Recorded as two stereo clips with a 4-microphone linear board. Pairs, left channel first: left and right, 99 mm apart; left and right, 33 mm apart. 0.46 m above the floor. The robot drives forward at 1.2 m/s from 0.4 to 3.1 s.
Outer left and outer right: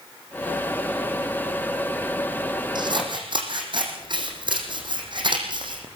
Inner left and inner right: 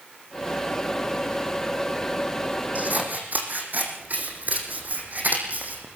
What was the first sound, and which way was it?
Scissors, 50° right (ahead or behind).